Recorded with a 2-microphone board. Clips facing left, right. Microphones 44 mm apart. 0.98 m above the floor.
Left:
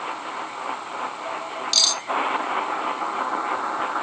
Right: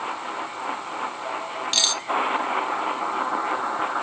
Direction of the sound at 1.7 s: 30° right (ahead or behind).